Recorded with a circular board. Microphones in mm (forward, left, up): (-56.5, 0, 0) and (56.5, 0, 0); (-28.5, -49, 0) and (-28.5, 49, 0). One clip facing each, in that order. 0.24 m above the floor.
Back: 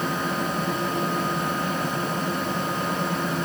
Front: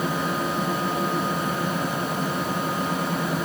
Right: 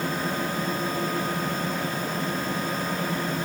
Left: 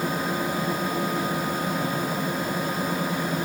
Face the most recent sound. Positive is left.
No sound to turn to.